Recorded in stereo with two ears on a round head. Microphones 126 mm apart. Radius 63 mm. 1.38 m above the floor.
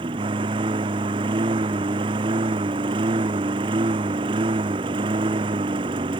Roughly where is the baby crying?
No baby crying in this recording.